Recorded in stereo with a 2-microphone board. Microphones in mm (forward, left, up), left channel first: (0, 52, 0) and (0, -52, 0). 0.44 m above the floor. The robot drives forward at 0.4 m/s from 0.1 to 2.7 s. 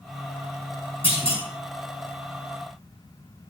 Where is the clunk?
65° left (ahead or behind), 5 m.